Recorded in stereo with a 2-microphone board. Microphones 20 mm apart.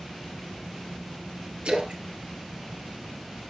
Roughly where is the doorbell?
No doorbell in this recording.